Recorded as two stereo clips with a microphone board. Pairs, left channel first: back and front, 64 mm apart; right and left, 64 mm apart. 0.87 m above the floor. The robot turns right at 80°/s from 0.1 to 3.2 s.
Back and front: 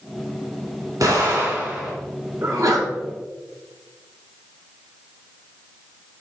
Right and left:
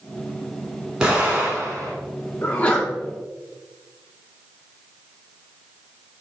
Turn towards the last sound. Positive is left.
turn(degrees=25)